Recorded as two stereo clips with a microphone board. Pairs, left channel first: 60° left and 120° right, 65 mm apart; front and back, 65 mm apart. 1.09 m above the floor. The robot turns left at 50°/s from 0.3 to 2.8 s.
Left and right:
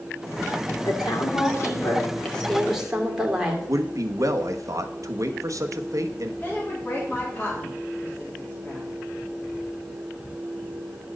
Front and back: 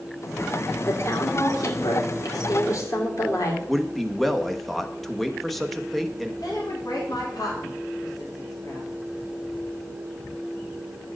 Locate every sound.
0.8 s a woman speaking: 55° left, 2.5 m; by 3.6 s 40° right, 2.5 m
3.7 s a man speaking: 90° right, 1.0 m
6.4 s a woman speaking: 5° right, 3 m